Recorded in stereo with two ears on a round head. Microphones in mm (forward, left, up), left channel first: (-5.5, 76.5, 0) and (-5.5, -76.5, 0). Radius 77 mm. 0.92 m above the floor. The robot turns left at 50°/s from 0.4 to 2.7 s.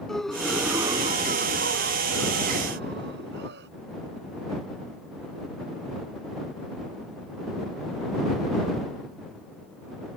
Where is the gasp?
Straight ahead; by 3.7 s 115° right.